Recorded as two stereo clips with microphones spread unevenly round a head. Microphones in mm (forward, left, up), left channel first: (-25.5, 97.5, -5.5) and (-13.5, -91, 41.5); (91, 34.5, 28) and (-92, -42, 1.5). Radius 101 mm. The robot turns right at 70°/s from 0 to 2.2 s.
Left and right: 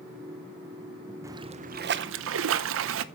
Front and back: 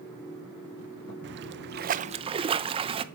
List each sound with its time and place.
1.2 s a splash: 170° right, 0.7 m; by 3.0 s 100° right, 0.7 m